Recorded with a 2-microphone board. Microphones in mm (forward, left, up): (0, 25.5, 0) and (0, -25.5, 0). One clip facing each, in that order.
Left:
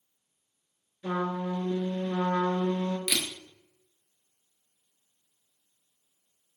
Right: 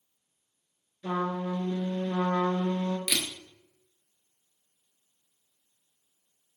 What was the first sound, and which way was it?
A trumpet, 10° left (ahead or behind).